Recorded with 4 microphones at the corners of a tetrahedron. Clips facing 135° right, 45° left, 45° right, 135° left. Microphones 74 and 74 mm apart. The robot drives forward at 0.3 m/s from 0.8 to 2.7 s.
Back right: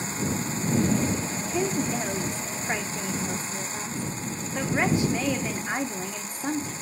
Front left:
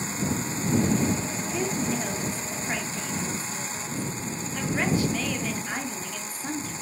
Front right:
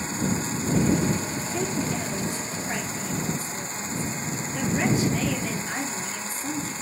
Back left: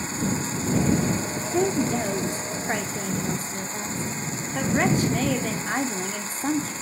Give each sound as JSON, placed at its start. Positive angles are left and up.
{"t": 1.5, "sound": "a woman speaking", "azimuth_deg": 150, "distance_m": 0.9}